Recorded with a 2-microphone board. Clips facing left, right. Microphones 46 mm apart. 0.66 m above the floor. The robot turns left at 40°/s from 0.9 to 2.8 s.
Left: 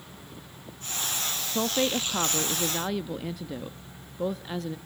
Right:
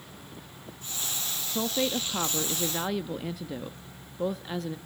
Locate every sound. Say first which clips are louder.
1.5 s a woman speaking: left 2 dB; 20° left (ahead or behind), 0.5 m; by 4.8 s centre (ahead or behind), 0.5 m